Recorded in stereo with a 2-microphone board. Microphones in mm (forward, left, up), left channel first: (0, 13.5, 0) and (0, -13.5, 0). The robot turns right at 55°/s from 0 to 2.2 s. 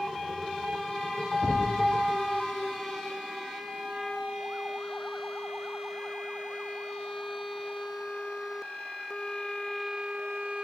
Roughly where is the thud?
Left.